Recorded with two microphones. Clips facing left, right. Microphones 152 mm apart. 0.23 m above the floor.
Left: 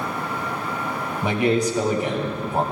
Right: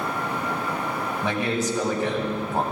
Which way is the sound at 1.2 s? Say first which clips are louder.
Left 6 dB; 15° left (ahead or behind).